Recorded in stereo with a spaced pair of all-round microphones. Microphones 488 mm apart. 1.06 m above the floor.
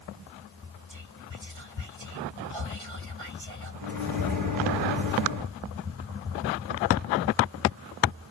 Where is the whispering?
70° right (ahead or behind), 1.6 m.